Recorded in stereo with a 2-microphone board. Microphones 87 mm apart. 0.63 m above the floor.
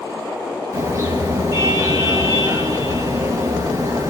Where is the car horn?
35° right (ahead or behind), 6 m.